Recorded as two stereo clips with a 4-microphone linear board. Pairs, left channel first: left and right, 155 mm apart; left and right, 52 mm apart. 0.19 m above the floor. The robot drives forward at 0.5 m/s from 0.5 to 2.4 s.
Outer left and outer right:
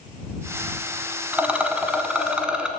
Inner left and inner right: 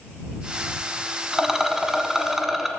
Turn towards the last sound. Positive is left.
turn(degrees=-5)  # may be behind; listen again after turning